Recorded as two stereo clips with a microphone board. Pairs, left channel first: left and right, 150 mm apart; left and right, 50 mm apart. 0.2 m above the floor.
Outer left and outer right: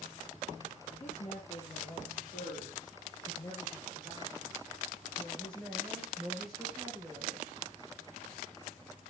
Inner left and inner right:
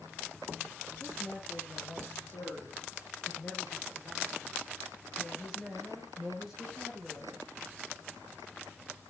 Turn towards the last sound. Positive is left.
turn(degrees=-10)  # may be behind; listen again after turning